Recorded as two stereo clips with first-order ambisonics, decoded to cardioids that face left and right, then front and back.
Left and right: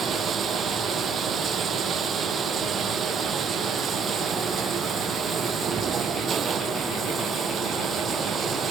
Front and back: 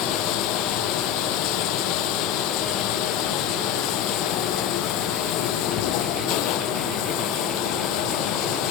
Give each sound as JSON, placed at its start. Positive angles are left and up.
{"t": 0.0, "sound": "running water", "azimuth_deg": -25}